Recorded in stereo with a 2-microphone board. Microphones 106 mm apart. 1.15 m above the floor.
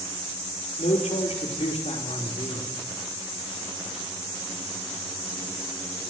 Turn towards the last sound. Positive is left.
turn(degrees=60)  # may be behind; listen again after turning